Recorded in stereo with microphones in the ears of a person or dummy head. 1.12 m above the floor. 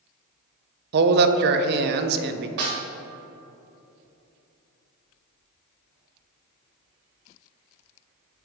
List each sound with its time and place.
0.9 s a man speaking: 55° right (ahead or behind), 0.5 m
2.6 s a snare drum: 50° right (ahead or behind), 1.2 m